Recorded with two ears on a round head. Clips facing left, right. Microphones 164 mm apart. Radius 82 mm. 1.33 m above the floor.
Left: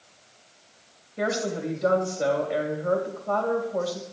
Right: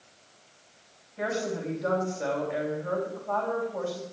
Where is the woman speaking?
50° left (ahead or behind), 3.5 m.